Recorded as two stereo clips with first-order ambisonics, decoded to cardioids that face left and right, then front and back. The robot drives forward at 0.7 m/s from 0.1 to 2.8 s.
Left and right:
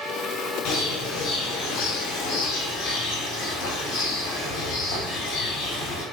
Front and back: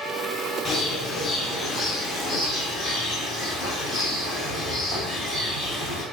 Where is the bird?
75° left, 3 m; by 6.0 s 100° left, 3 m.